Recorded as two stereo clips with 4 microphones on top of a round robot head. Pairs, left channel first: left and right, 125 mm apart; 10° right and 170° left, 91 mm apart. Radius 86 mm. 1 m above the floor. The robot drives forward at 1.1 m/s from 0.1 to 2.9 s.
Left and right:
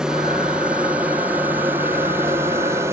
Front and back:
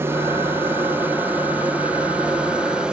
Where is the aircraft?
165° right; by 2.9 s 120° right.